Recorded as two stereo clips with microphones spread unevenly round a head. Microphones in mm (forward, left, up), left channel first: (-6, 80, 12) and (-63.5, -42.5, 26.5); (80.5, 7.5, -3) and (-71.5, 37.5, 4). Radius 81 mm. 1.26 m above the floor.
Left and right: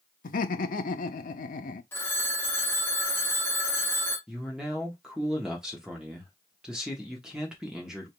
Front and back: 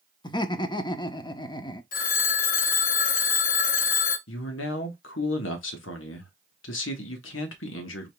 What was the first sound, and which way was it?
Laughter, 50° left.